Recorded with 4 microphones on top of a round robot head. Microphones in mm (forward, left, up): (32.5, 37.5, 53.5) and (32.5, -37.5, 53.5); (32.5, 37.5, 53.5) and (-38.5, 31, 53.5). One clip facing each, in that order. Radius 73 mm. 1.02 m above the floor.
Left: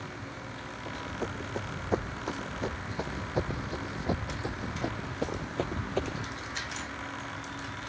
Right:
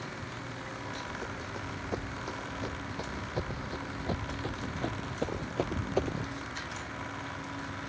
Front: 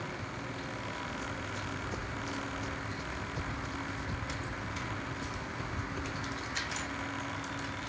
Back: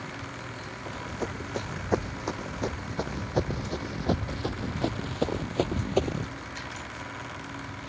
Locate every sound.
0.9 s running footsteps: 150° left; by 6.3 s 165° right